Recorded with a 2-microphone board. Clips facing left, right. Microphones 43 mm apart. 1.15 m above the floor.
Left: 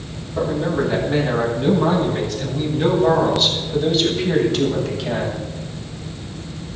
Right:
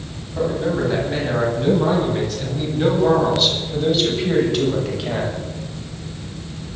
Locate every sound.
0.3 s a man speaking: 5° left (ahead or behind), 9.5 m; by 5.4 s 10° right (ahead or behind), 7 m